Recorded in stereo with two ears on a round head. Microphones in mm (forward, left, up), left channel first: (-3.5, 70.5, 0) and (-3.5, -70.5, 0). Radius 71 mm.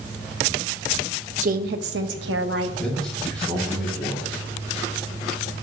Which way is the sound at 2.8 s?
5° left (ahead or behind).